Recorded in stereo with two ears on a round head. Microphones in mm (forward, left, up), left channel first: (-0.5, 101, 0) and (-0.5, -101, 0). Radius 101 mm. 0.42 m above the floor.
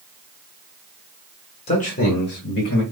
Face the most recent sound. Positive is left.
turn(degrees=55)  # may be behind; listen again after turning